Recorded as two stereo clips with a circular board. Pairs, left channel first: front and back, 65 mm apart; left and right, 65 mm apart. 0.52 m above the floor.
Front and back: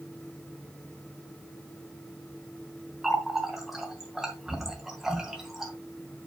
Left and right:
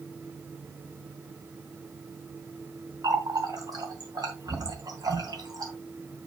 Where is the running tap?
95° right, 2.5 m.